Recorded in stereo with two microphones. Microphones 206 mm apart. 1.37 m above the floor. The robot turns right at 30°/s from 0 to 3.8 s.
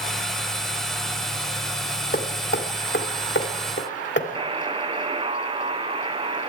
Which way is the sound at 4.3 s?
25° right (ahead or behind).